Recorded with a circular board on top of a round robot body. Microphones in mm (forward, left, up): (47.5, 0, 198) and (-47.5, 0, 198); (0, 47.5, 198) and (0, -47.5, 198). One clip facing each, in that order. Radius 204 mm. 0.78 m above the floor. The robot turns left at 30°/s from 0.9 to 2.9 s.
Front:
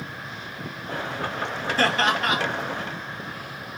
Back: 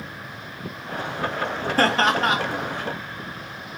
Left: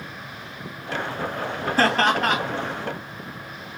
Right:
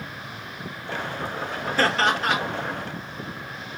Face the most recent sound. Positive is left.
turn(degrees=105)